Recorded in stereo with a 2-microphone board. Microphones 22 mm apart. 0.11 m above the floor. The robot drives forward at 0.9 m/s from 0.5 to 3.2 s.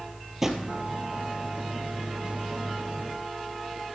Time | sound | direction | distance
0.4 | a drawer | 15° right (ahead or behind) | 1.9 m